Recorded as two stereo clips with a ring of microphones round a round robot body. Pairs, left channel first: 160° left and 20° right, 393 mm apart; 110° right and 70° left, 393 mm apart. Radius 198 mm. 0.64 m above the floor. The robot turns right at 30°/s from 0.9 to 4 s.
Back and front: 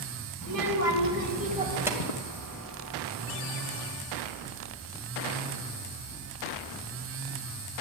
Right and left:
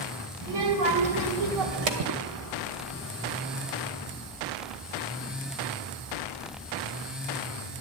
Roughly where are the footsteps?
Behind left.